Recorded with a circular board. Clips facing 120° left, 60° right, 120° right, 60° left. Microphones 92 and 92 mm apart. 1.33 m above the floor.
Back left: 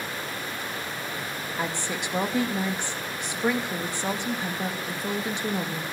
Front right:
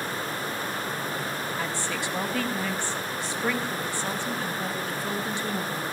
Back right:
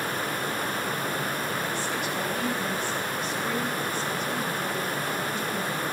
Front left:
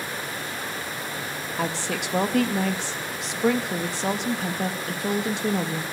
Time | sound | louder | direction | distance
1.6 | a woman speaking | even, front left 1 dB | 50° left | 2.5 m